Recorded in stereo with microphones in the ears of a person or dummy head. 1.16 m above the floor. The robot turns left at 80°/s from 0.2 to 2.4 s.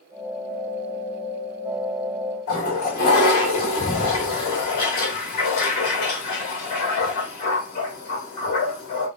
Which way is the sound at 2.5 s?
45° left (ahead or behind).